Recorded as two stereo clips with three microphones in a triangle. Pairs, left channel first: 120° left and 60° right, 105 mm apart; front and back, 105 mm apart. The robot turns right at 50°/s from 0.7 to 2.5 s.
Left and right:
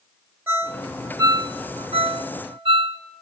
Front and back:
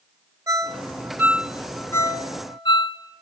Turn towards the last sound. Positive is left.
turn(degrees=-35)